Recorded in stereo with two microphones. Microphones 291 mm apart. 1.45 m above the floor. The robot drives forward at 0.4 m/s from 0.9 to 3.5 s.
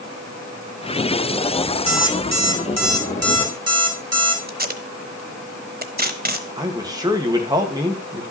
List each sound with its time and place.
1.9 s an alarm clock: 70° right (ahead or behind), 2.5 m; by 4.4 s 55° right (ahead or behind), 2.5 m
4.5 s tape being pulled: 30° right (ahead or behind), 1.0 m
6.6 s a man speaking: 15° right (ahead or behind), 2 m